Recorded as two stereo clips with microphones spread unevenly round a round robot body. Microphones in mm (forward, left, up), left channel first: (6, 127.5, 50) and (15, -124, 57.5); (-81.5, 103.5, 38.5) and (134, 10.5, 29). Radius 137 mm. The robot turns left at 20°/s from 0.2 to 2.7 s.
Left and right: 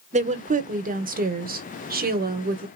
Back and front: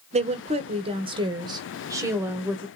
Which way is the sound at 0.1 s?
50° right.